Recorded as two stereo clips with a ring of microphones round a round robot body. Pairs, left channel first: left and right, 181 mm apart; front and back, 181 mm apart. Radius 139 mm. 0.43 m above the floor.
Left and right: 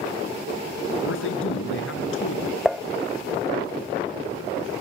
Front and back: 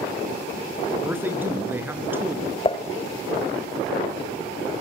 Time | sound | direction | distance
1.0 | a man speaking | 100° left | 6 m
2.6 | dishes clattering | straight ahead | 0.5 m